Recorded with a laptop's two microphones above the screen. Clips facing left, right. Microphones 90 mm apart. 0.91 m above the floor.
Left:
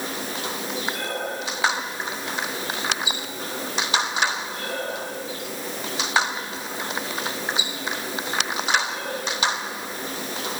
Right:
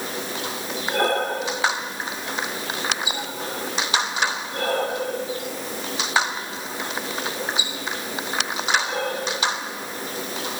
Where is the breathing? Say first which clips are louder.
Right 7 dB; 65° right (ahead or behind), 3 m.